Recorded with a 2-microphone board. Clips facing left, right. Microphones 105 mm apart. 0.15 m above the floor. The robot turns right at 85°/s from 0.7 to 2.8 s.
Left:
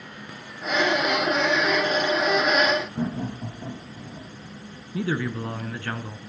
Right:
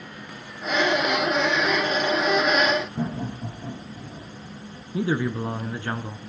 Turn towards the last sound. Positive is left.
turn(degrees=-20)  # may be behind; listen again after turning